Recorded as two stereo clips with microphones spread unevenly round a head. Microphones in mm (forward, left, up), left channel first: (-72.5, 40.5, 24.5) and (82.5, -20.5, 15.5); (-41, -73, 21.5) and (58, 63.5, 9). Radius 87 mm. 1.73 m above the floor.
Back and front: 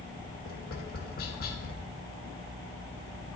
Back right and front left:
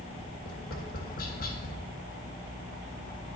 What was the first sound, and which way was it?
Tapping, 165° right.